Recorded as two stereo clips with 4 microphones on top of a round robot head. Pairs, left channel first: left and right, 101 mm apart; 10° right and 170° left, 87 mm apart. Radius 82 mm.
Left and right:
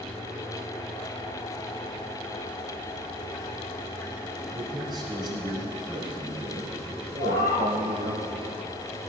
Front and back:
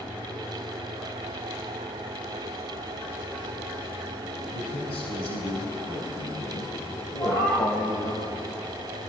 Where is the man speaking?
30° right, 4 m; by 8.2 s 65° right, 4 m.